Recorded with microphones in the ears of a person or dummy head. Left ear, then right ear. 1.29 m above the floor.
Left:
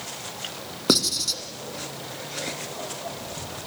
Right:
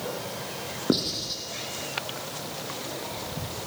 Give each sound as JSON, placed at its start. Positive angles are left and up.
{"t": 0.9, "sound": "writing", "side_deg": 70, "distance_m": 3.0}